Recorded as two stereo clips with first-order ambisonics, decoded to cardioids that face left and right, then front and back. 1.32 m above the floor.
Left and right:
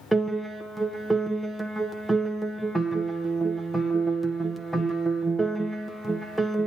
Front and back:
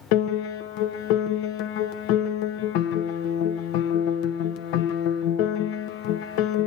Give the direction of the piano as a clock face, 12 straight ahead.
12 o'clock.